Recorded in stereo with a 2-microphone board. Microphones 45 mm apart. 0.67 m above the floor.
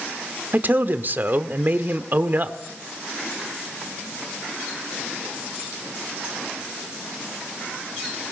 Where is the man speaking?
45° right (ahead or behind), 1.6 m.